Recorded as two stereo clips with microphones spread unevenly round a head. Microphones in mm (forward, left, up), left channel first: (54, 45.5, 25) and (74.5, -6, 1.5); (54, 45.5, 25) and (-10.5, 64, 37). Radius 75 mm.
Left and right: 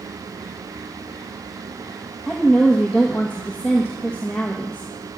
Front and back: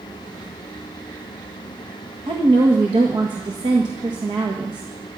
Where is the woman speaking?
165° right, 1.5 m.